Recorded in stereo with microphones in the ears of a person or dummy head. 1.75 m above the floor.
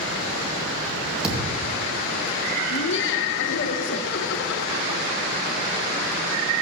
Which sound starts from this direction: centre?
A thud, at 1.2 s.